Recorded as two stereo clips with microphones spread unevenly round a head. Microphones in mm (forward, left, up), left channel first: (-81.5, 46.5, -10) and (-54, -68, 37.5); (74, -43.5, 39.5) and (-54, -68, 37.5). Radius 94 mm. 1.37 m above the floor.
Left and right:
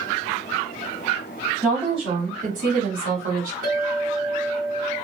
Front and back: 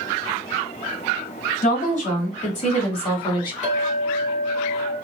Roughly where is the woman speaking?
Ahead.